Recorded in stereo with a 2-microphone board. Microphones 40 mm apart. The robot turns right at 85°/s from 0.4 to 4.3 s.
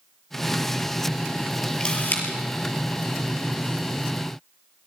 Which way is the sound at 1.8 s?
20° left (ahead or behind).